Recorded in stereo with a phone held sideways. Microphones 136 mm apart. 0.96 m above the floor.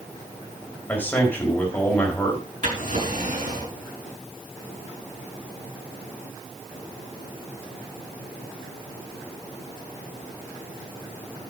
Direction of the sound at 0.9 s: 15° left (ahead or behind).